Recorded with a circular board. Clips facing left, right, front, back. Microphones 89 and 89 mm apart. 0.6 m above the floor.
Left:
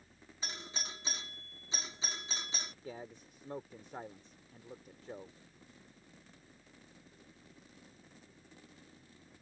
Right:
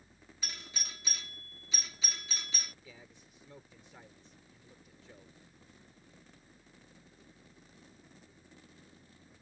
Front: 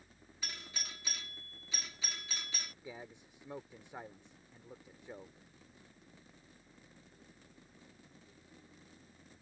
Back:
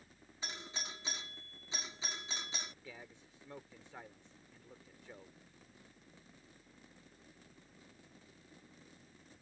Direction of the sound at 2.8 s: 65° left.